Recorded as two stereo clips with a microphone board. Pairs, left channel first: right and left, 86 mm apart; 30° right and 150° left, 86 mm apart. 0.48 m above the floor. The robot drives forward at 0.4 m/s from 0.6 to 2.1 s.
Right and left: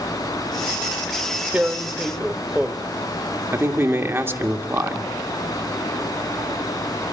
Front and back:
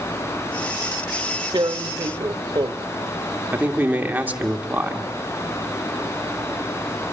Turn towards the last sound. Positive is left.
turn(degrees=105)